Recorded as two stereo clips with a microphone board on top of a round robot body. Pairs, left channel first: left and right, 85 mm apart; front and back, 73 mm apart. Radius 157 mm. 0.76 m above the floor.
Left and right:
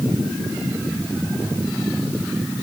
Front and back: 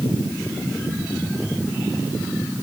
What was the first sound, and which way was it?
Only background noise.